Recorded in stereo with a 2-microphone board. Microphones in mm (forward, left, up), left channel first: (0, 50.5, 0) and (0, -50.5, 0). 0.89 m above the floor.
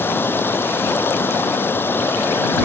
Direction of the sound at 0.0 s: 20° left (ahead or behind).